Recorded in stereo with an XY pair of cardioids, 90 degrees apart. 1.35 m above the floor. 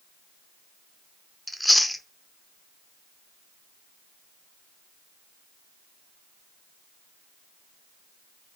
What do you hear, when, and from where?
1.5 s chewing: 5° left, 0.7 m